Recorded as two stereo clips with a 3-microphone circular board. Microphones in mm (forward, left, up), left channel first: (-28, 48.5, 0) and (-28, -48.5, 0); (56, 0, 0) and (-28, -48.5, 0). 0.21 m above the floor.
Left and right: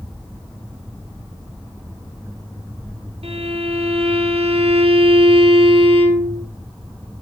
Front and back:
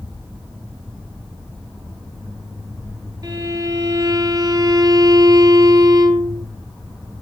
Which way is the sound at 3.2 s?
95° right.